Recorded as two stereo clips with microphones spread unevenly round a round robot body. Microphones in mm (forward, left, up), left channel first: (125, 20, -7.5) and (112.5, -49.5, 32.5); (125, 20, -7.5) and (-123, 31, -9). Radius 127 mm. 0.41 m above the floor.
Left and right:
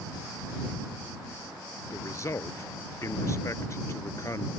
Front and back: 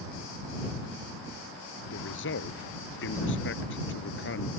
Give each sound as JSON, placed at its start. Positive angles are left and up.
{"t": 1.9, "sound": "a man speaking", "azimuth_deg": 35}